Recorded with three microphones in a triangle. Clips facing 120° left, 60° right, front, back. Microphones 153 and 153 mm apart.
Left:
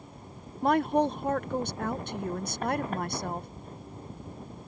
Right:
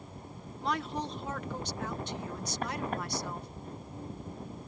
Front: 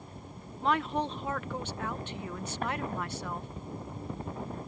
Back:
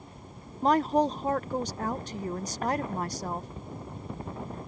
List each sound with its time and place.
0.6 s a woman speaking: 140° left